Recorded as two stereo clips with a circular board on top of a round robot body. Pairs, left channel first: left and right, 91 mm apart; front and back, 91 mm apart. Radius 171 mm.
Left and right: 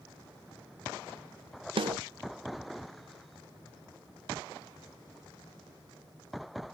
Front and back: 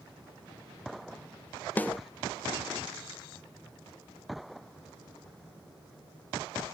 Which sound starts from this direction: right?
A snare drum, at 1.8 s.